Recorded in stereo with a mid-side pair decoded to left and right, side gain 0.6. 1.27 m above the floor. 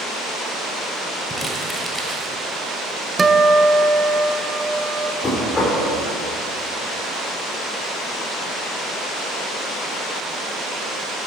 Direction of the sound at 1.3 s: Straight ahead.